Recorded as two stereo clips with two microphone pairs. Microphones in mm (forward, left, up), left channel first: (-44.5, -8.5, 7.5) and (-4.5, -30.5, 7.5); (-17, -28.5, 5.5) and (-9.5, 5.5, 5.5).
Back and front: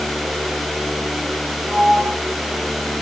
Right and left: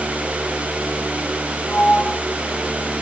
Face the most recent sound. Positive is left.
turn(degrees=-95)